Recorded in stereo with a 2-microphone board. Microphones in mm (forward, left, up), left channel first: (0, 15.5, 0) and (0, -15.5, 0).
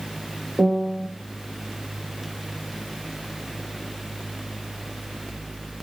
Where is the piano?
30° right (ahead or behind), 1.8 m.